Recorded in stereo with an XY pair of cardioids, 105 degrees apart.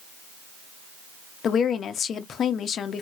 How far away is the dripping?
I don't hear dripping.